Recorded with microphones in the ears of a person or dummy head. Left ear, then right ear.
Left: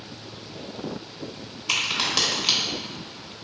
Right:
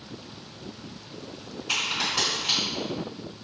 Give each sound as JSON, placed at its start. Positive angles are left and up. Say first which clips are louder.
{"t": 1.7, "sound": "a crack", "louder": "left 3 dB", "side_deg": 35, "distance_m": 0.8}